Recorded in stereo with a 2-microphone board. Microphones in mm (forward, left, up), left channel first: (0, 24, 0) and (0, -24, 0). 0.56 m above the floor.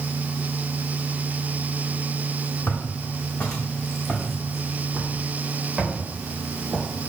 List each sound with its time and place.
2.7 s footsteps: 40° left (ahead or behind), 2.0 m; by 6.9 s 35° right (ahead or behind), 4.5 m